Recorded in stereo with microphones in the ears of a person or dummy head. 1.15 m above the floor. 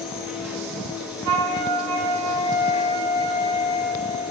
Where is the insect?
Centre (ahead or behind), 1.6 m.